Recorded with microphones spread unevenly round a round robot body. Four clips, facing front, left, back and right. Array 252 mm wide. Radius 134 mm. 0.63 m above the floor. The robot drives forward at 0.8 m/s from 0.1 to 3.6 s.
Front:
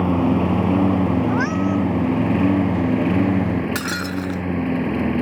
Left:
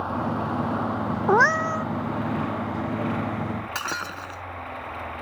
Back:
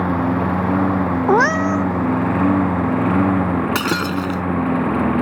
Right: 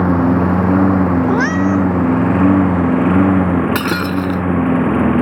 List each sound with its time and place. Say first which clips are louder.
0.0 s a lawn mower: right 13 dB, even; 80° right; by 5.2 s 90° right
1.3 s a cat meowing: right 6 dB, back 5 dB; 175° left
3.8 s breaking glass: right 14 dB, back 5 dB; 120° right